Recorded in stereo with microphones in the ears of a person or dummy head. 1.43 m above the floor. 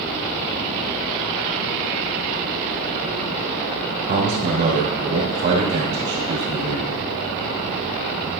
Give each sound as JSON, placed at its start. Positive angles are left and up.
{"t": 4.1, "sound": "a man speaking", "side_deg": -55, "distance_m": 2.5}